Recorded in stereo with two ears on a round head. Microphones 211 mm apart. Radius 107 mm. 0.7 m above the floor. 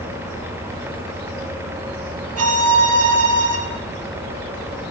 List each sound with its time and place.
2.4 s a violin: 70° right (ahead or behind), 1.6 m